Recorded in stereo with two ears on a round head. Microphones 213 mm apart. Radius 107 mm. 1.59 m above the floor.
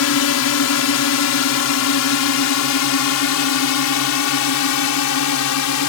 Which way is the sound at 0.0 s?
70° left (ahead or behind).